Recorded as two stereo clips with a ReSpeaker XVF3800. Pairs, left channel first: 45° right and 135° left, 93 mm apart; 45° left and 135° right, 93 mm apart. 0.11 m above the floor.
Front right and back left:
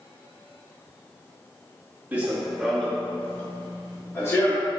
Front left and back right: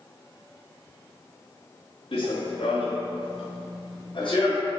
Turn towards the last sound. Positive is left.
turn(degrees=15)